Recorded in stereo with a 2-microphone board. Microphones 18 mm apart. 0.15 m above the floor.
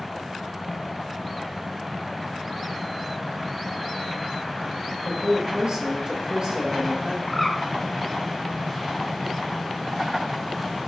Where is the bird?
10° left (ahead or behind), 1.3 m.